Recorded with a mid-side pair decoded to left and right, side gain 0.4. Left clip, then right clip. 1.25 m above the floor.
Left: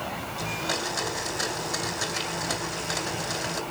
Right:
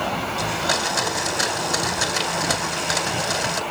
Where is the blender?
60° right, 3 m.